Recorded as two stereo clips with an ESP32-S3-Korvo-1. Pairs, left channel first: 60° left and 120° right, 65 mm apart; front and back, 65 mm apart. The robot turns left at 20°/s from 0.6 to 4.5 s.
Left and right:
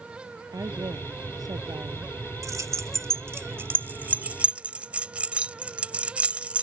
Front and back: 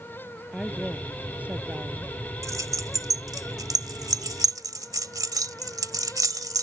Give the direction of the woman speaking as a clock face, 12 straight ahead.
3 o'clock.